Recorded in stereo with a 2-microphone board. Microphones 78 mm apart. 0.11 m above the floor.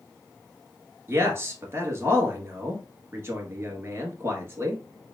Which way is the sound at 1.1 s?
30° right (ahead or behind).